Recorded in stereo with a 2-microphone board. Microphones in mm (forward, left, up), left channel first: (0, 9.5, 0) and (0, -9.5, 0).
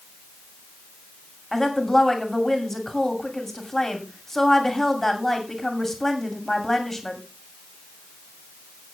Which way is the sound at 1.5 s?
15° left (ahead or behind).